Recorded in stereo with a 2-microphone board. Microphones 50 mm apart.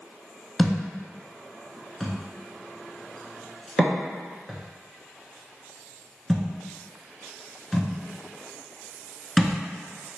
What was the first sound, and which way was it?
A thud, 5° left (ahead or behind).